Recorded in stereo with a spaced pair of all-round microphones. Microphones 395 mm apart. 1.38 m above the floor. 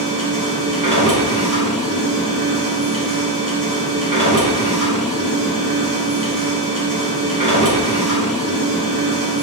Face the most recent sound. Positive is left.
turn(degrees=-55)  # may be behind; listen again after turning